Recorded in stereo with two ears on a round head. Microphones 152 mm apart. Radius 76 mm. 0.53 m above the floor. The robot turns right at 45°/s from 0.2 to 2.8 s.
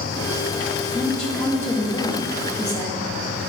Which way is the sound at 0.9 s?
Centre (ahead or behind).